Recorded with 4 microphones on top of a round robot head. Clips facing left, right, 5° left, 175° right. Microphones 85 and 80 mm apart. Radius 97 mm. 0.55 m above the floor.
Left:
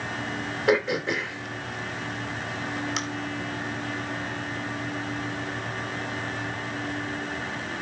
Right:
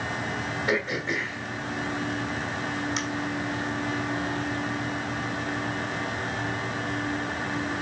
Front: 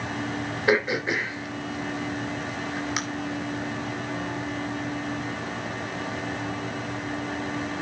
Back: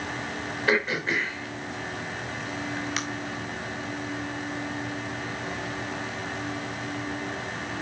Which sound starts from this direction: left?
Throat clearing, at 0.7 s.